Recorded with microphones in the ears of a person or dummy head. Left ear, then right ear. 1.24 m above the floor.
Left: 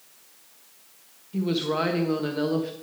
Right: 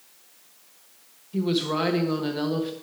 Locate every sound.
1.3 s a woman speaking: 5° right (ahead or behind), 1.2 m